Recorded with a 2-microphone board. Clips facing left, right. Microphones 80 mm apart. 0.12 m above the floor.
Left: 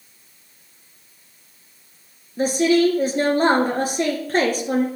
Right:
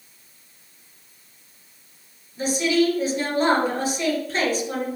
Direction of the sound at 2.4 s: 50° left (ahead or behind).